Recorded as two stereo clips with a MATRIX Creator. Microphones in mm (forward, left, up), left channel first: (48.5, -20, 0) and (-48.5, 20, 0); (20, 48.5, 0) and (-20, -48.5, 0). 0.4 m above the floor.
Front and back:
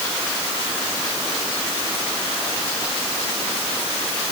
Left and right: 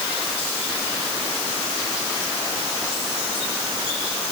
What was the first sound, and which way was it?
Only background noise.